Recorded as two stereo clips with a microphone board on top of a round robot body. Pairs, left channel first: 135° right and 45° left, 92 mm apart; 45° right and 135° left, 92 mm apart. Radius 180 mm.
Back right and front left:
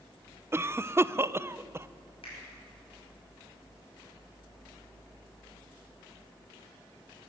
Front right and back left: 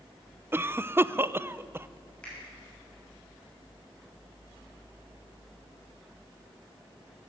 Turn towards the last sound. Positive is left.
turn(degrees=-125)